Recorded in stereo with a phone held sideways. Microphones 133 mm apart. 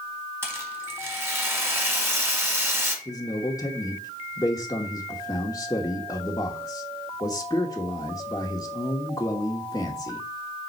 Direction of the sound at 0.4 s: 15° right (ahead or behind).